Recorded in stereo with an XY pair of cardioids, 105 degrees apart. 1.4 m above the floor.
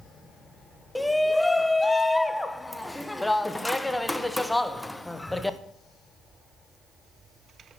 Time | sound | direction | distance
0.9 | a shout | 10° left | 0.9 m